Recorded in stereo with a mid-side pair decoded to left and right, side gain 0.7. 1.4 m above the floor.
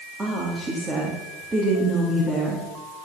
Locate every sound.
0.2 s a woman speaking: 20° right, 3 m